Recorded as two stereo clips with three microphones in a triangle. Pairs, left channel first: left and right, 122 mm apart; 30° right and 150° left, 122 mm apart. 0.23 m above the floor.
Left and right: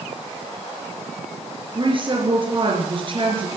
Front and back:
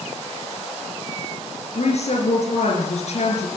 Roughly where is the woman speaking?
Ahead right.